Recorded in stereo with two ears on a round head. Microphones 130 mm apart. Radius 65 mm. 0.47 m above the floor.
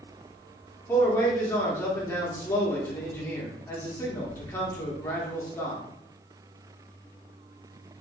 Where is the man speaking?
20° left (ahead or behind), 0.8 m.